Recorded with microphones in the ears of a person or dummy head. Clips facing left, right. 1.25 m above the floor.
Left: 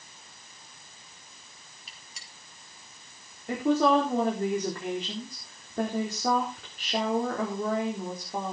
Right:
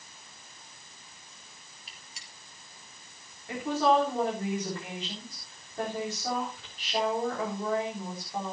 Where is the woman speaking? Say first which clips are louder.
Left 3 dB; 45° left (ahead or behind), 4 m.